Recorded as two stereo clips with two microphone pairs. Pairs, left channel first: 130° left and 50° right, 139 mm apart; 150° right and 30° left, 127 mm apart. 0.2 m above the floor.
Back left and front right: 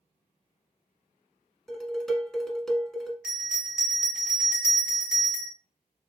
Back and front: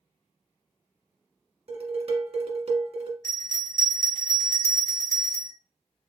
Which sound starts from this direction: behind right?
A bell, at 3.2 s.